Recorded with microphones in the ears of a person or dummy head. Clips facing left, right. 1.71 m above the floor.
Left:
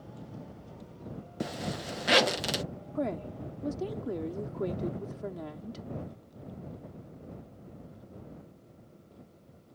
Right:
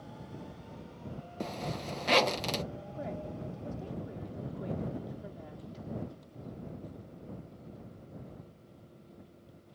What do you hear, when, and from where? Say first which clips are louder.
1.4 s a zipper: left 2 dB; 15° left (ahead or behind)
3.0 s a woman speaking: left 8 dB; 80° left